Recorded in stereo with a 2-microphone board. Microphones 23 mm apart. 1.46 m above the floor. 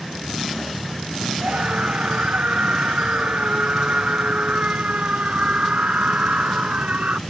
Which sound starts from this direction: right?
A scream, at 1.4 s.